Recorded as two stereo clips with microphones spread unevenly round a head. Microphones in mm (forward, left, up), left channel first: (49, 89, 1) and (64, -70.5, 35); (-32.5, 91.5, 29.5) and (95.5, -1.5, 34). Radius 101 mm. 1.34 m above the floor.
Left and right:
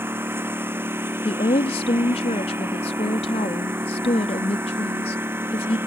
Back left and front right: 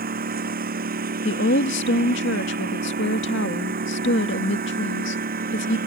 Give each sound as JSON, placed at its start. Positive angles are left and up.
{"t": 0.0, "sound": "a lawn mower", "azimuth_deg": -10}
{"t": 1.2, "sound": "a woman speaking", "azimuth_deg": 160}